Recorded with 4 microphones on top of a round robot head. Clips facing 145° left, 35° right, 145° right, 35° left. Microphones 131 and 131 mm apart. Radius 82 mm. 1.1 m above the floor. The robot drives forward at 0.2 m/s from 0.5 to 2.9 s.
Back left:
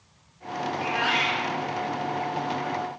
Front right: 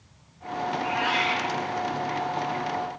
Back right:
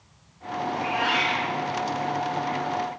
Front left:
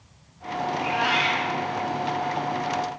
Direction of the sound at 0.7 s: 125° left.